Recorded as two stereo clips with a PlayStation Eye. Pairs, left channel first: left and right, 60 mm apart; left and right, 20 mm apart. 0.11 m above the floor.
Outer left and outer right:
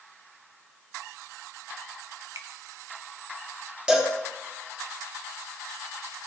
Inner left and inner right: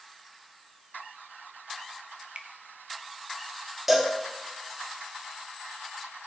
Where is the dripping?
55° right (ahead or behind), 1.1 m.